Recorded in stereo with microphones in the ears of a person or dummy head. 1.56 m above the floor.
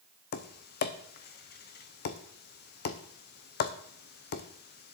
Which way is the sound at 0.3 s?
50° left (ahead or behind).